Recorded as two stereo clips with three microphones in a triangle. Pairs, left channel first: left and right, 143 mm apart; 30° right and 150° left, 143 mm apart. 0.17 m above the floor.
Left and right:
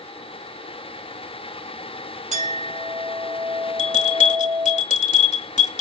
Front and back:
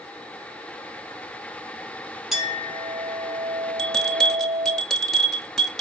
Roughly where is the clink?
Behind right.